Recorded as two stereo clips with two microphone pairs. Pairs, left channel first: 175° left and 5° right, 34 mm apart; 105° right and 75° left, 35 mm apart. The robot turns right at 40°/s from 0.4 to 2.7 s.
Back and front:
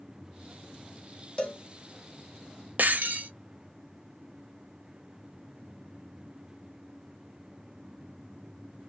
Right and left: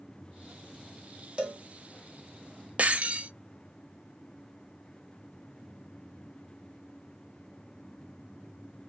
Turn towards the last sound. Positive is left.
turn(degrees=30)